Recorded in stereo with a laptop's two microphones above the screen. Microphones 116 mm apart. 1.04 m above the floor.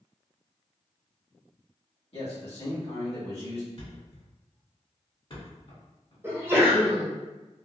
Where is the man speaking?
60° left (ahead or behind), 1.4 m.